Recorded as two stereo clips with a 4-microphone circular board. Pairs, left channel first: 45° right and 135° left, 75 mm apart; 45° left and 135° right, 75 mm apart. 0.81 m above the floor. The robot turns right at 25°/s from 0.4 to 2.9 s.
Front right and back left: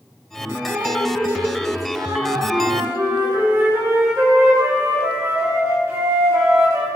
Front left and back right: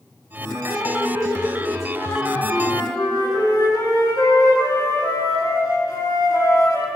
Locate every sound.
0.7 s dripping: 70° left, 7 m; by 3.4 s 125° left, 7 m
2.5 s a flute: 70° left, 9.5 m; by 6.9 s 80° left, 9.5 m